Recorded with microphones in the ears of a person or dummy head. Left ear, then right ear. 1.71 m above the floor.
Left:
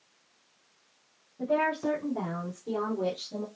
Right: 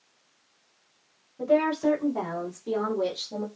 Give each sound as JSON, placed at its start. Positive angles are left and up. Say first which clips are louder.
{"t": 1.4, "sound": "a woman speaking", "louder": "right 4 dB", "side_deg": -90, "distance_m": 2.5}